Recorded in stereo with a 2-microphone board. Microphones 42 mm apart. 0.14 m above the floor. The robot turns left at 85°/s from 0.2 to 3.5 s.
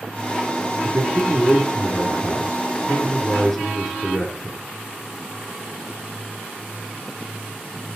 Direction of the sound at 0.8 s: 120° right.